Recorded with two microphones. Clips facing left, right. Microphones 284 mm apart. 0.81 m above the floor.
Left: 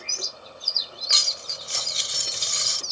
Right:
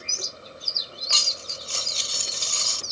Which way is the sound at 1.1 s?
20° left (ahead or behind).